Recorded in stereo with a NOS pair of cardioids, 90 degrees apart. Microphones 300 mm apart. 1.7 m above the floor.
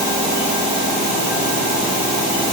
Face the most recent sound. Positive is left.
No sound to turn to.